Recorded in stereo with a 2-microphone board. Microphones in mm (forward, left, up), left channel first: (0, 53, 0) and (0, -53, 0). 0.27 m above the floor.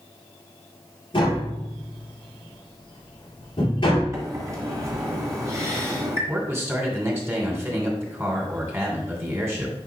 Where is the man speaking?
25° right (ahead or behind), 2.5 m.